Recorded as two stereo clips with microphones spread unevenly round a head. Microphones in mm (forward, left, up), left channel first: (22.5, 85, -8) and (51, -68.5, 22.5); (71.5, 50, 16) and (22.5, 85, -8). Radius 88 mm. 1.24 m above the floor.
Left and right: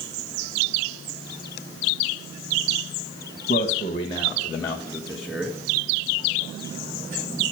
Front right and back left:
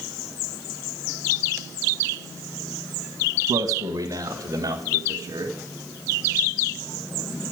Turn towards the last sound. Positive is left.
turn(degrees=-165)